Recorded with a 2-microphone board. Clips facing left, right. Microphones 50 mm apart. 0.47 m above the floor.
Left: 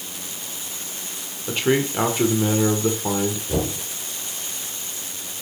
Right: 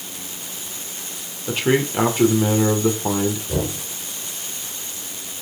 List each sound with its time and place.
1.5 s a man speaking: 5° right (ahead or behind), 1.7 m
3.5 s knocking: 5° left (ahead or behind), 5 m